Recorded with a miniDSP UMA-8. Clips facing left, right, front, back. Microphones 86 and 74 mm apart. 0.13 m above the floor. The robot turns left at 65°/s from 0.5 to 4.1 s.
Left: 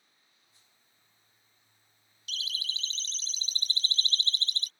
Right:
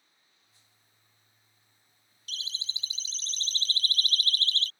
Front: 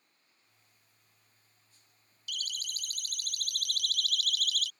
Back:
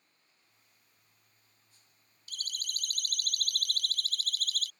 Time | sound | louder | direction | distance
2.3 | a siren | left 2 dB, front 2 dB | 135° right | ?